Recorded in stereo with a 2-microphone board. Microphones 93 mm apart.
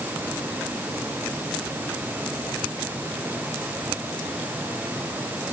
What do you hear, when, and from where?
Only background noise.